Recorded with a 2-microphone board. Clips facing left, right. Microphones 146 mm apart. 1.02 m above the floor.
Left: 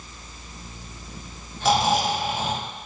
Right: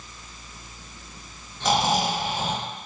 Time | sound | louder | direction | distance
1.6 | snoring | left 2 dB | 5° left (ahead or behind) | 1.0 m